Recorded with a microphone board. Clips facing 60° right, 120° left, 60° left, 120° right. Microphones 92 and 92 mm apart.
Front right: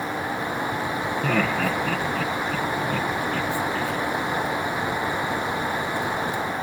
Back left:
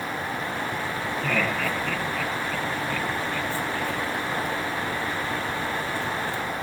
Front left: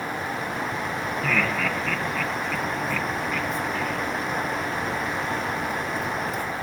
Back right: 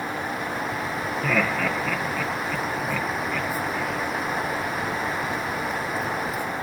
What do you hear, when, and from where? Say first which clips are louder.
1.2 s laughter: front right 3 dB, back right 2 dB; 40° right, 2.5 m